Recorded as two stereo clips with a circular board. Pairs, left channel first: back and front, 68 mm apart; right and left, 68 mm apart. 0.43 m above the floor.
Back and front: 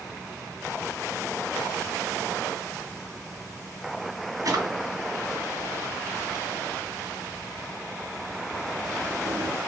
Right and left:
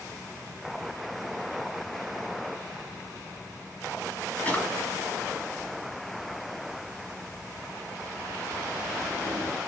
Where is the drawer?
20° right, 1.3 m.